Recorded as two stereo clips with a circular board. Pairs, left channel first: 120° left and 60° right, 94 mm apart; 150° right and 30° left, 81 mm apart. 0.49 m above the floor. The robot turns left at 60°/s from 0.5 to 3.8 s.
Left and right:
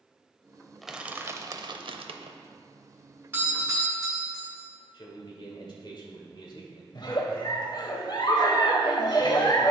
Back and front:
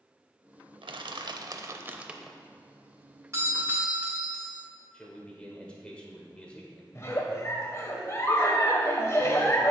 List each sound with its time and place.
0.8 s crushing: 30° left, 0.5 m; by 2.4 s 65° right, 0.5 m
3.3 s a doorbell: straight ahead, 2 m; by 4.6 s 30° right, 2 m
4.9 s a man speaking: 135° left, 1.6 m
7.0 s a giggle: 160° left, 0.9 m